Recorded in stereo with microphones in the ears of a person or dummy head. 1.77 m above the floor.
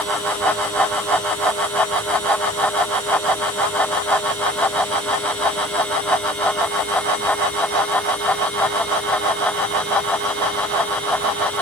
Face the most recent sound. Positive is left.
No sound to turn to.